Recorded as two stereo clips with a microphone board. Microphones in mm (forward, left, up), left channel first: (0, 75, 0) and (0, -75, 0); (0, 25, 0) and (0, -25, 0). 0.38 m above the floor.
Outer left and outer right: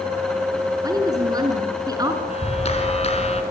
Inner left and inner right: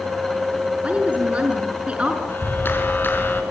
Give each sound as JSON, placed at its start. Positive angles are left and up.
{"t": 0.8, "sound": "a woman speaking", "side_deg": -25, "distance_m": 5.5}
{"t": 2.3, "sound": "a clap", "side_deg": 45, "distance_m": 3.5}